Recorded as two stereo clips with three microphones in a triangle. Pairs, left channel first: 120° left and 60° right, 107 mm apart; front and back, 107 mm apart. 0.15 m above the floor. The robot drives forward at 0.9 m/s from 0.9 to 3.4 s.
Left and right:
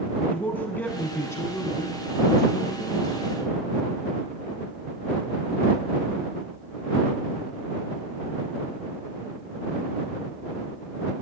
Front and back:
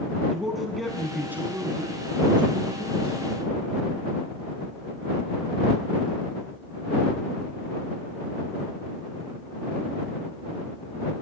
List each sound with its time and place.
0.3 s a man speaking: 90° left, 1.2 m; by 3.6 s 170° left, 2.5 m